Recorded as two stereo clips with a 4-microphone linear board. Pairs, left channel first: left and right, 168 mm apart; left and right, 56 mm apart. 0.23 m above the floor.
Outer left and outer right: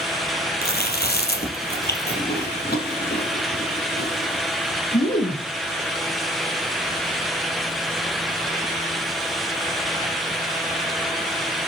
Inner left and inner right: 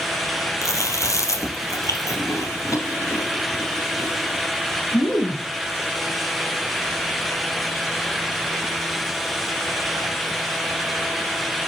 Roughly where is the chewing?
Left.